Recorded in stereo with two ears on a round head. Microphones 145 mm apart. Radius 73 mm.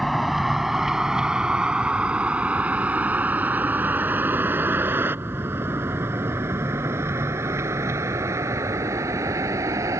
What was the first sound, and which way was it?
A vehicle, centre (ahead or behind).